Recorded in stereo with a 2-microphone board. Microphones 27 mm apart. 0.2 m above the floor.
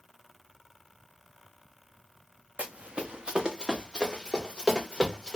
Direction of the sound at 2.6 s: 50° right (ahead or behind).